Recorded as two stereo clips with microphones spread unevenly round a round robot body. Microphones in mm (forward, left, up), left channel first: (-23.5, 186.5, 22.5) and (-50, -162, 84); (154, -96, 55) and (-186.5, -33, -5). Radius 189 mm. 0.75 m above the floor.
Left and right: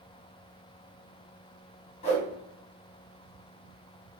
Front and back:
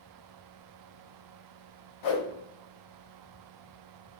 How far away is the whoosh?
About 0.8 m.